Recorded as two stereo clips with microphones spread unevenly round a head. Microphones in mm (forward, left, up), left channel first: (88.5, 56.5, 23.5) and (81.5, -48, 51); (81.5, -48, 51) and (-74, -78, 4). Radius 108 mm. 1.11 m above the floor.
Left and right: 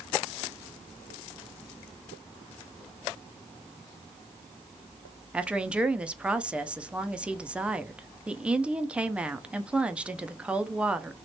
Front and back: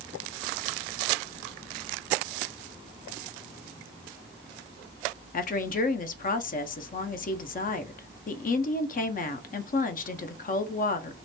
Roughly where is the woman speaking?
Ahead.